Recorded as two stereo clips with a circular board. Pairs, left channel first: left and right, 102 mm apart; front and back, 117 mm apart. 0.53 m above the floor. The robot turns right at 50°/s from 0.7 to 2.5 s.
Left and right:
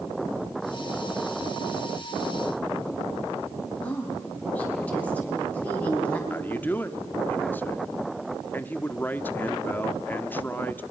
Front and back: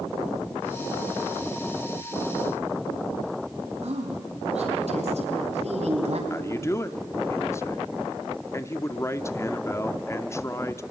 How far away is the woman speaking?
About 4 m.